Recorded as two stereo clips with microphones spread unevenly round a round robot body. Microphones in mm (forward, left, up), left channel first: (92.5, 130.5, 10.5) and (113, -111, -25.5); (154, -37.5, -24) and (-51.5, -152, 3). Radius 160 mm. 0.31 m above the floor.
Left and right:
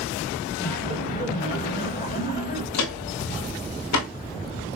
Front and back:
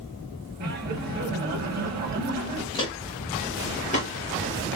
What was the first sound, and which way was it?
Laughter, 160° left.